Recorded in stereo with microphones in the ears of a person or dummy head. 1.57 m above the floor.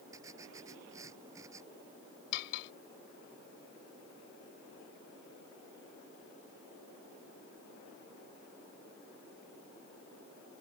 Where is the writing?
10° right (ahead or behind).